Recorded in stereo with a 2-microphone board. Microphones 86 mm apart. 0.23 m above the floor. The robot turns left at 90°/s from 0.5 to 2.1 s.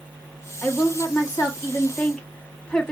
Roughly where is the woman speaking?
Behind left.